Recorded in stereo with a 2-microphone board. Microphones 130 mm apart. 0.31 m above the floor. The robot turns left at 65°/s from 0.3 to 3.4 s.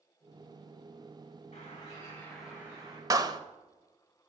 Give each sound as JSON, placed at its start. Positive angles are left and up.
{"t": 1.5, "sound": "a bird", "azimuth_deg": 60, "distance_m": 7.5}
{"t": 3.1, "sound": "a clap", "side_deg": -25, "distance_m": 0.7}